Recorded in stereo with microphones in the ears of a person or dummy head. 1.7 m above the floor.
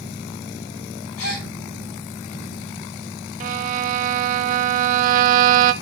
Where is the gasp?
85° left, 9.5 m.